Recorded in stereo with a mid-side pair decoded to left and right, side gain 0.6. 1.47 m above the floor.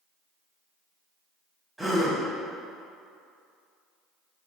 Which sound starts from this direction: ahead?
A gasp, at 1.8 s.